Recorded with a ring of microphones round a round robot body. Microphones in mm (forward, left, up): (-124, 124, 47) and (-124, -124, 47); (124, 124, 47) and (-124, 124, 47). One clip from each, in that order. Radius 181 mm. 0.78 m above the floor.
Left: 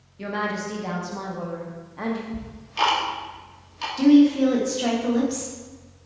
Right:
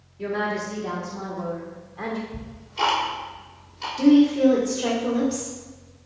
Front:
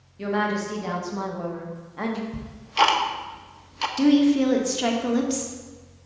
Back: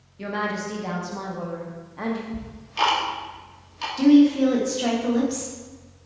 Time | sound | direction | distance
0.2 | a woman speaking | 85° left | 2.0 m
2.3 | ticking | 50° left | 1.0 m
4.0 | a woman speaking | 45° left | 1.7 m